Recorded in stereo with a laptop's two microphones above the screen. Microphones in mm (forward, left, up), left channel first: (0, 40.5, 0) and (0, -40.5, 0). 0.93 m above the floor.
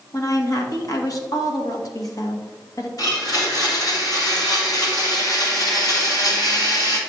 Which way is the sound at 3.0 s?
50° left (ahead or behind).